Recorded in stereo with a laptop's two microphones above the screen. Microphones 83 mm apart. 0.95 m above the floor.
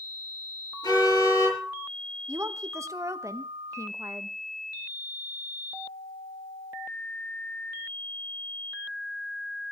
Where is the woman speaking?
40° right (ahead or behind), 0.9 m.